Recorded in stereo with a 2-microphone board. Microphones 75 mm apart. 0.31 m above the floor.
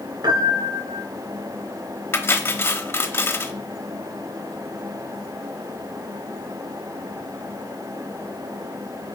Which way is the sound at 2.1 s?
30° left (ahead or behind).